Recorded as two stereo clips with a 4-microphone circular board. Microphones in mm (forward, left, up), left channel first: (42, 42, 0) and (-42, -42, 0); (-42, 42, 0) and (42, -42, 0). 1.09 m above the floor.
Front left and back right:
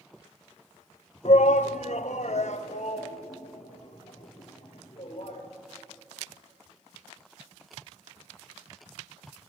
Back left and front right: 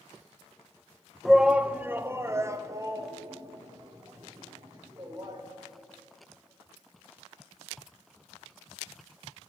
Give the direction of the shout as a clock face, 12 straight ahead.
10 o'clock.